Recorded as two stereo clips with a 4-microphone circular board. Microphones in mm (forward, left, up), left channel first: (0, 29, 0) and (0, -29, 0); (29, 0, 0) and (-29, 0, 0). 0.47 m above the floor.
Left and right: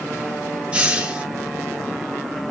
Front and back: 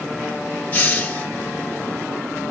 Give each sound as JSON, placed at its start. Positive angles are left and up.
{"t": 0.7, "sound": "a hiss", "azimuth_deg": -40, "distance_m": 0.7}